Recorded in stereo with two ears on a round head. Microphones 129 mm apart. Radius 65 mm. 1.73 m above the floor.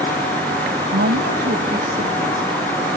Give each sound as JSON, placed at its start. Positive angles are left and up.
{"t": 0.9, "sound": "a woman speaking", "side_deg": -70}